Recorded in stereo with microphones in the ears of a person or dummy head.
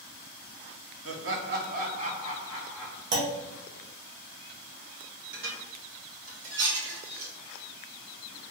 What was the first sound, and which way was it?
Laughter, 70° right (ahead or behind).